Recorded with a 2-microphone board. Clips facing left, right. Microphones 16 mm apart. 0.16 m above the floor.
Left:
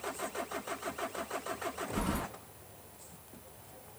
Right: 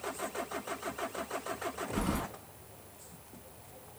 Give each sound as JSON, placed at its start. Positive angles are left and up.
{"t": 1.9, "sound": "keys jangling", "side_deg": -5, "distance_m": 0.8}